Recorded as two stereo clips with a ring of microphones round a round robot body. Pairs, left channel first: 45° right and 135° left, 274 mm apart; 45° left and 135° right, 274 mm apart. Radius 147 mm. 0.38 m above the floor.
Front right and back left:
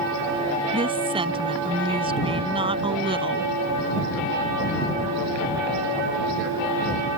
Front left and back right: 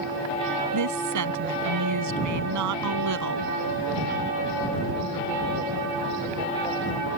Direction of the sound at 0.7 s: 155° right.